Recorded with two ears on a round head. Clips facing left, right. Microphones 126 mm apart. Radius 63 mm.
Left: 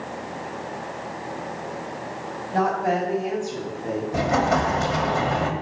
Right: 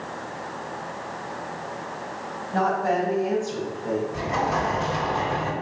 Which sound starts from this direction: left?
An explosion, at 4.1 s.